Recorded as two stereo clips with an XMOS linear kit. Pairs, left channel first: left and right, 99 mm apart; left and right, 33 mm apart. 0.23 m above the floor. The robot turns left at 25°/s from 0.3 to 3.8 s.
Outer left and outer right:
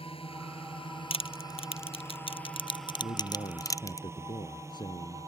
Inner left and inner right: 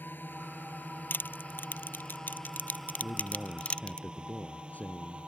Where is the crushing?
80° left; by 4.0 s 35° left (ahead or behind).